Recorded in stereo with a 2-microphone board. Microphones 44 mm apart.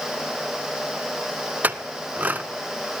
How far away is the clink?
About 0.8 m.